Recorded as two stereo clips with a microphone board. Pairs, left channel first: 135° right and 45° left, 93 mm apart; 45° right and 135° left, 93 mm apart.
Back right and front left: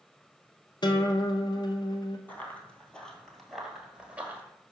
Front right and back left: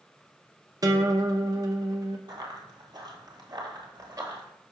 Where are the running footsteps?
160° left, 1.7 m; by 4.4 s 105° left, 1.4 m.